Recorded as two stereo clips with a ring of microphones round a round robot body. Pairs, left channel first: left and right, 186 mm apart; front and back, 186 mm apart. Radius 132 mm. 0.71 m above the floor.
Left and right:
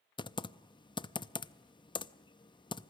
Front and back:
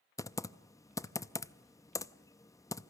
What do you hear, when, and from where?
0.2 s typing on a keyboard: 55° left, 0.7 m